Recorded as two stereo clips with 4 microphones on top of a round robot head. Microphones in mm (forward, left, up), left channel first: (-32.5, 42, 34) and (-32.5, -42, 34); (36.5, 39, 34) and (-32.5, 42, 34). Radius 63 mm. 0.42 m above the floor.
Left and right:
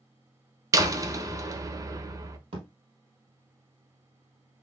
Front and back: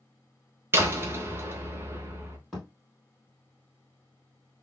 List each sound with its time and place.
0.7 s a door slam: 130° right, 0.8 m
2.5 s a thud: 90° right, 2.5 m